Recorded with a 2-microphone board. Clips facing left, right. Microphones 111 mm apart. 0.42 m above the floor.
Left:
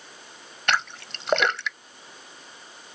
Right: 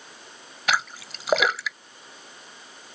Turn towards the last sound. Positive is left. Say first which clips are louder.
# even
turn(degrees=-5)  # may be behind; listen again after turning